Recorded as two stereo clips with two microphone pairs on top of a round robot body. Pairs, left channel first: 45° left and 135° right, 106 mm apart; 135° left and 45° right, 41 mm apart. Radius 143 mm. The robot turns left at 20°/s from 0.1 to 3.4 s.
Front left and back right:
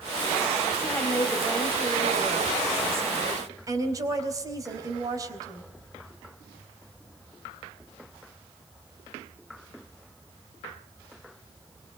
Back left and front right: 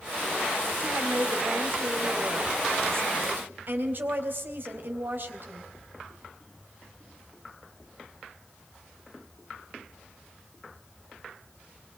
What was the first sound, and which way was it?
A woman speaking, 25° right.